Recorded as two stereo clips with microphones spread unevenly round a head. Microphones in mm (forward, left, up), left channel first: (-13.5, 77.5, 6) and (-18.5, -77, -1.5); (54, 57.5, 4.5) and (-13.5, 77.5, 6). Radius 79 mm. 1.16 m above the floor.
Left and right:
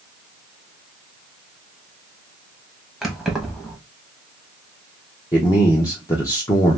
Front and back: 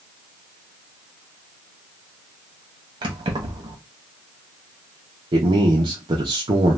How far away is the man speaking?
About 0.7 m.